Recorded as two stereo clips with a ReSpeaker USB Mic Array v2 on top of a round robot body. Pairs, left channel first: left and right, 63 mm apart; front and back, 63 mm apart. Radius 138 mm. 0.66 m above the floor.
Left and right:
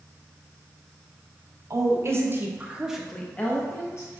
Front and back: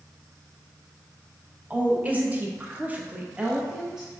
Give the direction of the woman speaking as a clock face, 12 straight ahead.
4 o'clock.